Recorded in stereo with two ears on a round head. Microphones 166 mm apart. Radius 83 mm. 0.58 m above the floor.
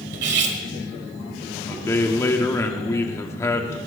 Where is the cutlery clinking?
65° right (ahead or behind), 1.6 m.